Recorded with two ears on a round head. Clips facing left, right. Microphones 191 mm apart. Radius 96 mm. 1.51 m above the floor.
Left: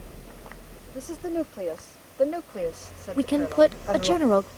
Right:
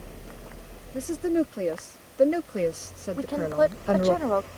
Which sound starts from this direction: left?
A woman speaking, at 3.2 s.